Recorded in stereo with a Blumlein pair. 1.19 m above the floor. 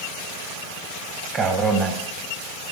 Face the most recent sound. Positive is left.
turn(degrees=-20)